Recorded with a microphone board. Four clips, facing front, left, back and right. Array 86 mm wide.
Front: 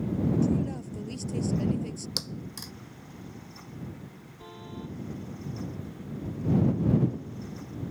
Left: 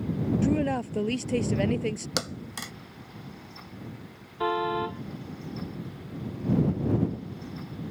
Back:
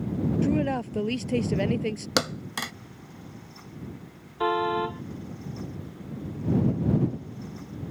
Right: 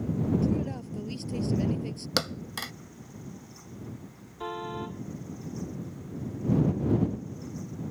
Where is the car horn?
150° left.